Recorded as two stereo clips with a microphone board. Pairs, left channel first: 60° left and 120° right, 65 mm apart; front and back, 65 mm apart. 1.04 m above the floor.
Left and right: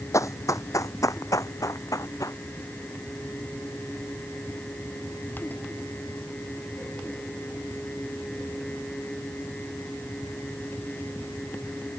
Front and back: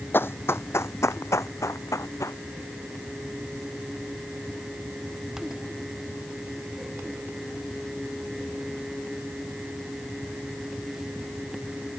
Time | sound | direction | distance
0.1 | running footsteps | 50° left | ?